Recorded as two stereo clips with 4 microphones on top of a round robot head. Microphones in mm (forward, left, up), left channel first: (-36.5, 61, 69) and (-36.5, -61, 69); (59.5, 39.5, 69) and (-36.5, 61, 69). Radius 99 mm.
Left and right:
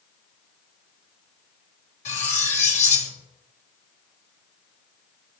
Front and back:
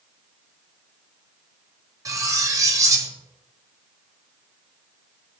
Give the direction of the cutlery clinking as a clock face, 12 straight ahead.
8 o'clock.